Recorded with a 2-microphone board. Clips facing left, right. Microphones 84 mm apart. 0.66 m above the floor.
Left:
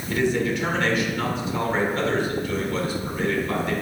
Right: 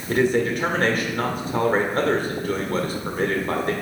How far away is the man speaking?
About 1.7 m.